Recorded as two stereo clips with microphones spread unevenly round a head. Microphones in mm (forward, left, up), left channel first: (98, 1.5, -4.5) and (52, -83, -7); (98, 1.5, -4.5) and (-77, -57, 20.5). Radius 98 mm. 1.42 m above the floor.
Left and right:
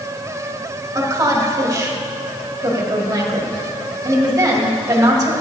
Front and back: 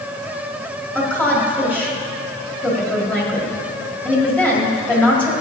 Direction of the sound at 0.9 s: 65° right.